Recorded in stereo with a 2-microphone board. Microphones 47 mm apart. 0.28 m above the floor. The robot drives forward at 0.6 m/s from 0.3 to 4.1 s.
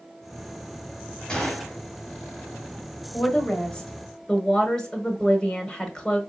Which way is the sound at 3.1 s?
20° left (ahead or behind).